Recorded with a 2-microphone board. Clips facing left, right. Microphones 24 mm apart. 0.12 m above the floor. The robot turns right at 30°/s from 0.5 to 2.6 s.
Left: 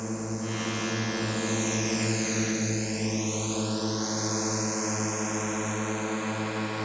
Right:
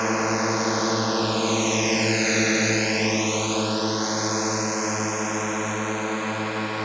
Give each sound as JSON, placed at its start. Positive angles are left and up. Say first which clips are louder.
{"t": 0.0, "sound": "a drone", "louder": "right 10 dB", "side_deg": -60}